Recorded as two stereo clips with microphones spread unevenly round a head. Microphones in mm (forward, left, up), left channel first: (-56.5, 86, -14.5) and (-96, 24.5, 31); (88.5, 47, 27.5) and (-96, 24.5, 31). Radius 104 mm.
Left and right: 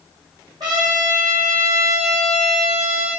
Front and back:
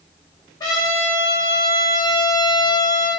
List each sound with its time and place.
0.6 s a trumpet: 65° right, 3 m